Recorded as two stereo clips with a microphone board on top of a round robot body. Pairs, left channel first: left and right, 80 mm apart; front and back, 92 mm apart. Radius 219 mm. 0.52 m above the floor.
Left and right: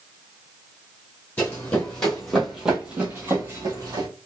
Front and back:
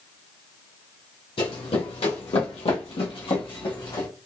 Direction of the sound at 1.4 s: 20° left.